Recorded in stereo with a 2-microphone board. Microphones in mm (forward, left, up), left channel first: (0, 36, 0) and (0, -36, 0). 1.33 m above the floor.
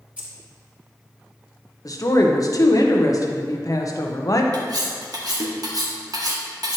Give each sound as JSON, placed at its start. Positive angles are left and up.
{"t": 0.2, "sound": "keys jangling", "side_deg": -20, "distance_m": 2.5}
{"t": 1.9, "sound": "a woman speaking", "side_deg": 50, "distance_m": 0.9}
{"t": 4.5, "sound": "cutlery clinking", "side_deg": -60, "distance_m": 1.2}